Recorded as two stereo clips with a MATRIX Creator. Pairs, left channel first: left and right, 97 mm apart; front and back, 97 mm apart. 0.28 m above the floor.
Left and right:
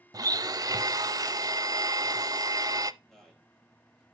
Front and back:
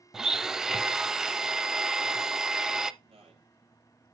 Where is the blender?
100° right, 0.6 m.